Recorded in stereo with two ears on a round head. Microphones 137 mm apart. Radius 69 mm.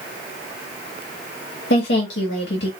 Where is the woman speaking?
75° left (ahead or behind), 1.9 m.